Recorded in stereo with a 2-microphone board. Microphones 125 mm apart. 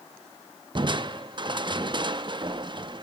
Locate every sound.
0.8 s crushing: 40° right (ahead or behind), 0.5 m